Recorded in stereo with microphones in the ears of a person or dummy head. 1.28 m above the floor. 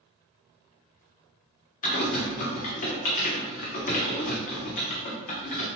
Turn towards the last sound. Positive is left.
turn(degrees=45)  # may be behind; listen again after turning